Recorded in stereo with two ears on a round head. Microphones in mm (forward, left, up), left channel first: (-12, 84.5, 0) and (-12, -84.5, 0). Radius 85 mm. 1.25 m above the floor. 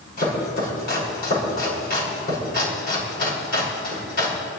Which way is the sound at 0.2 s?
55° left (ahead or behind).